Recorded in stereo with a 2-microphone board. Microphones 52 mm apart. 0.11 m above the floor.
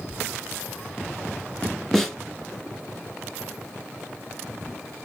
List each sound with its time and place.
1.9 s a snare drum: 5° left (ahead or behind), 1.6 m